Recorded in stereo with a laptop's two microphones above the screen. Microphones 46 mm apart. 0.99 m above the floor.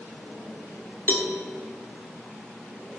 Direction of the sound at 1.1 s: 45° left (ahead or behind).